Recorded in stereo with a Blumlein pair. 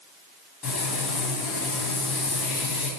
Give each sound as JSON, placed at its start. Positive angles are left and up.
{"t": 0.6, "sound": "frying", "azimuth_deg": 25, "distance_m": 2.5}